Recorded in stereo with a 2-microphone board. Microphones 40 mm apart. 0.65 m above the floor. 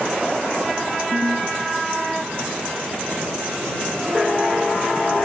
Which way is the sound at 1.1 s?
75° right (ahead or behind).